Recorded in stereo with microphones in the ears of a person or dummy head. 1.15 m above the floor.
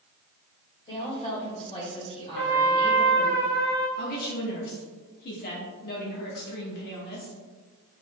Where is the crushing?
No crushing in this recording.